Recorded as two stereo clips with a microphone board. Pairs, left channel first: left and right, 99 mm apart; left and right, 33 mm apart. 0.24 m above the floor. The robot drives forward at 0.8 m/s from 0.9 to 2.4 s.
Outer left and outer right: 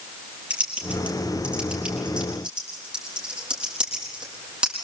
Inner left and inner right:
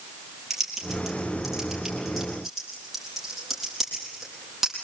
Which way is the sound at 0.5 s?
15° right (ahead or behind).